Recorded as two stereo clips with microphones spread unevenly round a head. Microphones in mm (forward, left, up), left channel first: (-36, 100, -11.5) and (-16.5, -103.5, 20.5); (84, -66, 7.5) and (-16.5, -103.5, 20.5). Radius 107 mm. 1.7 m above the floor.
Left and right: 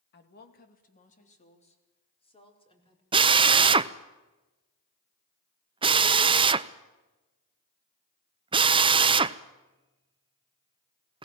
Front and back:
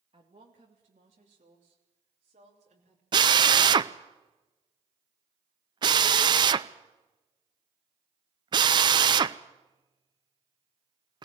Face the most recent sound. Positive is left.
turn(degrees=-135)